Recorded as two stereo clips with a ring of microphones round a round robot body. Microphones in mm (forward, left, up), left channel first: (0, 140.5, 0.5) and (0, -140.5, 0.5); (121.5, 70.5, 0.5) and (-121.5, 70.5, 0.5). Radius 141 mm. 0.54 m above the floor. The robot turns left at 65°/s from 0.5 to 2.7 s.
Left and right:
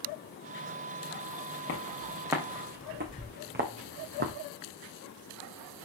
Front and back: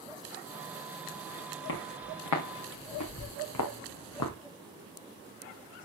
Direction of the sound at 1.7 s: 35° left.